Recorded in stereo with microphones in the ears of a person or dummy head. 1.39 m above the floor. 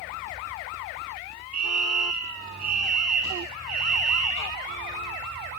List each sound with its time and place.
1.5 s a fire alarm: 80° right, 5.5 m